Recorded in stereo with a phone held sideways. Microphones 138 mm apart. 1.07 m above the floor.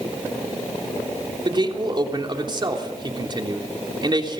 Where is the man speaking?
35° right (ahead or behind), 3 m.